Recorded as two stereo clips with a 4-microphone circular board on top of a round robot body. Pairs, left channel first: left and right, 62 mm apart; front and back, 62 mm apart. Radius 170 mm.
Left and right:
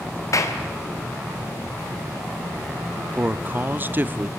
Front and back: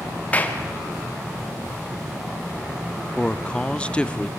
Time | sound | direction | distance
0.3 | a clap | 65° left | 2.5 m
3.2 | a man speaking | 60° right | 1.0 m